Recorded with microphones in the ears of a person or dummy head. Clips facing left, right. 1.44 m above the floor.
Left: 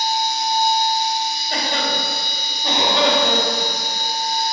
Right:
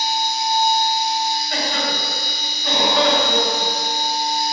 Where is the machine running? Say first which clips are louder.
Left 1 dB; 15° left (ahead or behind), 1.4 m.